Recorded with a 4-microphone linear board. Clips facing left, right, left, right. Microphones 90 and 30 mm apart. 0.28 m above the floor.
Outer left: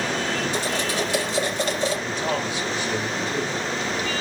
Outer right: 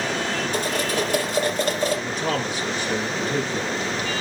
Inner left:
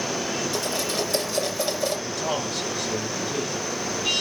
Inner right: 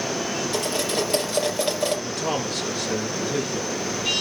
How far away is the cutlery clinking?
About 5 m.